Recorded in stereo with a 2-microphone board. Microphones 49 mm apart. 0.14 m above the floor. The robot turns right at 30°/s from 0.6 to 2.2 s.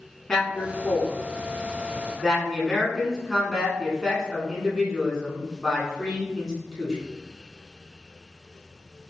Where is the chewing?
No chewing in this recording.